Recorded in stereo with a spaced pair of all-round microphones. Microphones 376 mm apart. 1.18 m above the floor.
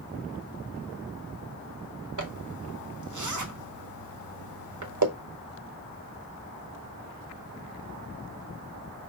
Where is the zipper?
55° right (ahead or behind), 0.8 m.